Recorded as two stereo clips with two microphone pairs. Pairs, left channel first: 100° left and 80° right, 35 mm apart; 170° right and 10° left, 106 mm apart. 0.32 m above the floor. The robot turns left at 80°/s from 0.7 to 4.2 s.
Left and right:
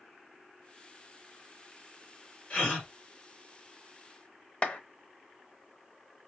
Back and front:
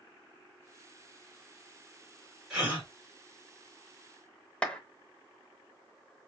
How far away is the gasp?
About 1.6 m.